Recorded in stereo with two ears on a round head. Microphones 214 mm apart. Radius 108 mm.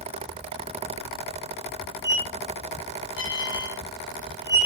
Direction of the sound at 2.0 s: 15° left (ahead or behind).